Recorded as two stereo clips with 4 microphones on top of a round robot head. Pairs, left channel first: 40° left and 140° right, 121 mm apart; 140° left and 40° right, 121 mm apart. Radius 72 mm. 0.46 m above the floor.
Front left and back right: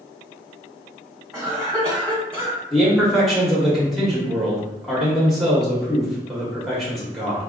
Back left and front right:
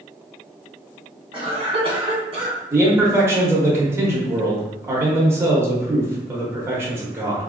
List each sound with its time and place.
1.3 s a cough: 40° right, 1.8 m
2.7 s a man speaking: 50° right, 0.9 m